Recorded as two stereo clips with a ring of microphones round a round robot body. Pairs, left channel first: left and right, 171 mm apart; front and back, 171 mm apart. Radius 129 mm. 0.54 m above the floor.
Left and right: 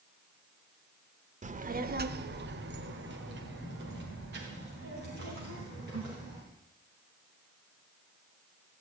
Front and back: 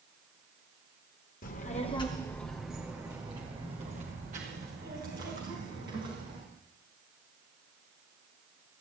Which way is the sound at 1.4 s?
45° right.